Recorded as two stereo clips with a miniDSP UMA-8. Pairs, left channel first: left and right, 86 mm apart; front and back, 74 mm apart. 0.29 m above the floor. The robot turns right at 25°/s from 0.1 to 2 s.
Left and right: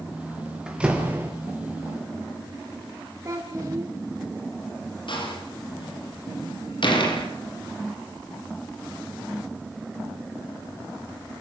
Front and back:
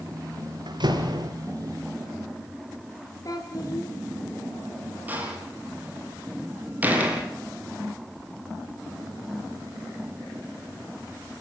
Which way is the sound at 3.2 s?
35° right.